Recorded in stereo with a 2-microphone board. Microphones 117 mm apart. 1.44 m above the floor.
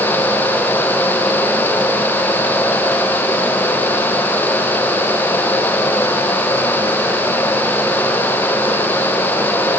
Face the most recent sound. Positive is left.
No sound to turn to.